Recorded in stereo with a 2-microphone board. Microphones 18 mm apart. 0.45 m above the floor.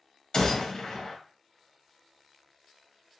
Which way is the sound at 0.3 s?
50° left (ahead or behind).